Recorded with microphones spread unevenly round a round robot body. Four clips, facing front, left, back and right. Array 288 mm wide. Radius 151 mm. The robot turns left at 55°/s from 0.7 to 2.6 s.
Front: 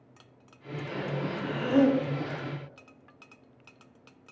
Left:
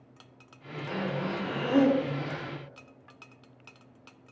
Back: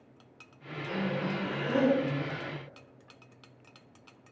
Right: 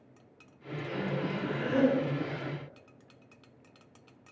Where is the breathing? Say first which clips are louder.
Left 2 dB, back 1 dB; 125° left, 2 m; by 2.5 s 35° left, 2 m.